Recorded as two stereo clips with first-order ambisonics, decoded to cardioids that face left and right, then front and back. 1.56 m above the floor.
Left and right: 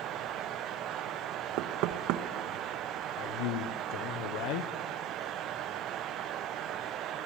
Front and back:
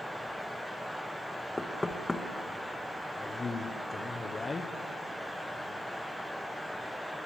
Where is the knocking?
80° right, 1.3 m.